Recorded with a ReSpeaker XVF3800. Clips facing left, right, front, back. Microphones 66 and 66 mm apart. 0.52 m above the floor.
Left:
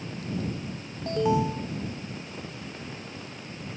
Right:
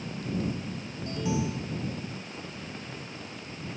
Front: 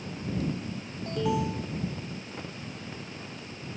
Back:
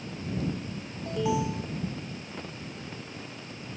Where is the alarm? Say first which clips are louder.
Left 6 dB, even; 95° left.